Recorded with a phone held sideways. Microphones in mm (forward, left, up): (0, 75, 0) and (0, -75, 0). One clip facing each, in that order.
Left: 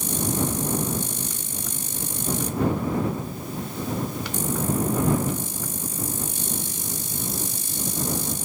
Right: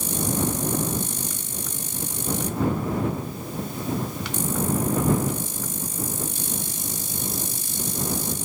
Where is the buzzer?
I don't hear a buzzer.